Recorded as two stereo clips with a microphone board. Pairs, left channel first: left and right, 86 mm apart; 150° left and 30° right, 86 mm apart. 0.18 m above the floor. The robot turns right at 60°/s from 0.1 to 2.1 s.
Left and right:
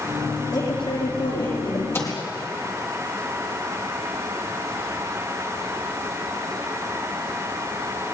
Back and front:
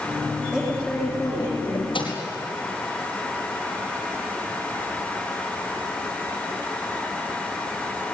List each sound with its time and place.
0.5 s a woman speaking: 45° left, 10 m; by 1.8 s 125° left, 10 m
1.9 s a microwave: 150° left, 5 m; by 2.2 s 160° left, 5 m